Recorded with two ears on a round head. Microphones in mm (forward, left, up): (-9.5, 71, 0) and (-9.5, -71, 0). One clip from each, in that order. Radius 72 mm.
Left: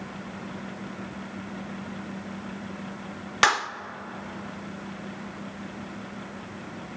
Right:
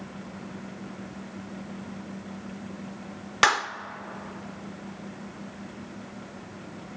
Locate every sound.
3.4 s a clap: 5° left (ahead or behind), 0.6 m